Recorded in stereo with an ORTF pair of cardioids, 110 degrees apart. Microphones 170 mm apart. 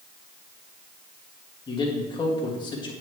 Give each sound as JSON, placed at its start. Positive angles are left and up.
{"t": 1.7, "sound": "a man speaking", "azimuth_deg": 25, "distance_m": 2.0}